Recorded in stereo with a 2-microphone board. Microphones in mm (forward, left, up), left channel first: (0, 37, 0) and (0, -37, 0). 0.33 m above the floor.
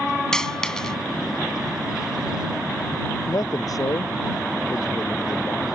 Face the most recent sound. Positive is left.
turn(degrees=60)  # may be behind; listen again after turning